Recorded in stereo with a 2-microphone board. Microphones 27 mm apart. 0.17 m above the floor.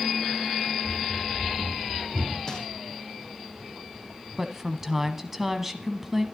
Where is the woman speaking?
10° right (ahead or behind), 1.0 m.